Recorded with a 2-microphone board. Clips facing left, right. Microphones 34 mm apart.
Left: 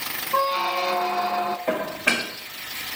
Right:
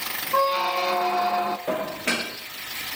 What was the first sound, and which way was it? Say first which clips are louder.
A squeak: right 1 dB; centre (ahead or behind).